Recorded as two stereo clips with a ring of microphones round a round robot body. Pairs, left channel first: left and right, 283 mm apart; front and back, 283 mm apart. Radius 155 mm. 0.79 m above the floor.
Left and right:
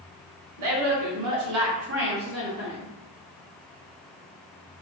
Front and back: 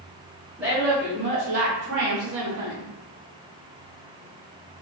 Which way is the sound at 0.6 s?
95° right.